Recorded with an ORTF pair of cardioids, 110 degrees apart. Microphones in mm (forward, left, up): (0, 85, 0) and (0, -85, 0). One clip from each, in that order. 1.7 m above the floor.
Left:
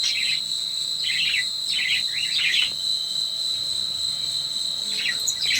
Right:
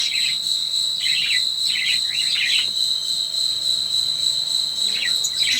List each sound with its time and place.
0.0 s an insect: 70° right, 2 m